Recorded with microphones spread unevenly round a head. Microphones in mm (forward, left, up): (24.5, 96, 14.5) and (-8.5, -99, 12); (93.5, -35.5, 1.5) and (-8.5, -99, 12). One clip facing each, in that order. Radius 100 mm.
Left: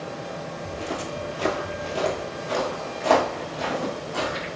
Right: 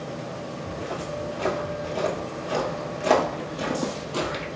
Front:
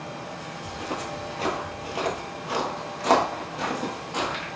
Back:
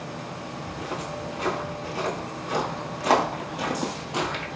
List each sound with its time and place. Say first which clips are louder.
0.7 s footsteps: left 1 dB, front 2 dB; 65° left, 1.5 m; by 4.5 s 95° right, 1.7 m